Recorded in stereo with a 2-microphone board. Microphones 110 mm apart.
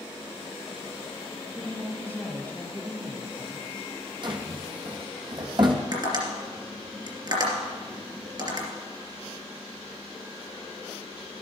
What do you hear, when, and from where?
1.6 s a woman speaking: 15° left (ahead or behind), 2.5 m
4.2 s a drawer: 45° right (ahead or behind), 1.1 m
5.9 s tapping: 40° right (ahead or behind), 2.5 m